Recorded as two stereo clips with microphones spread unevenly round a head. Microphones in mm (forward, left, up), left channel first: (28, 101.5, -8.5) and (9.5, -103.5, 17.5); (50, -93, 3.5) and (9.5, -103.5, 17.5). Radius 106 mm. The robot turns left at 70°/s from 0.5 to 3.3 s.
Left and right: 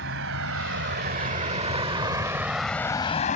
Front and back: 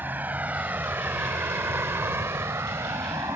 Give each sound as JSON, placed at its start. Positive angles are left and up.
{"t": 0.0, "sound": "a vehicle", "azimuth_deg": -130}